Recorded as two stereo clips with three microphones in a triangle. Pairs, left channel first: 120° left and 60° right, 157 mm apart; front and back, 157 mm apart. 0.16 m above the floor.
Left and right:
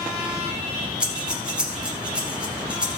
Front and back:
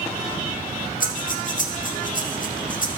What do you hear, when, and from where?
1.0 s breathing: 25° left, 1.6 m